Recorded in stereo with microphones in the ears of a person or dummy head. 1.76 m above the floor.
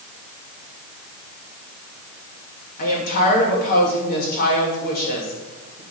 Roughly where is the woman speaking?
Left.